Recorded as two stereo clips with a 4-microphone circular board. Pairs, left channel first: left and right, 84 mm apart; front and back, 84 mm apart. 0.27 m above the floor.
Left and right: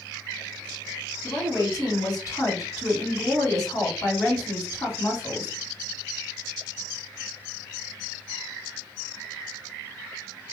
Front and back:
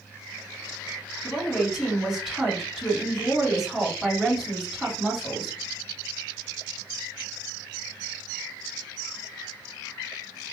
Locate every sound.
1.2 s a woman speaking: 90° left, 2 m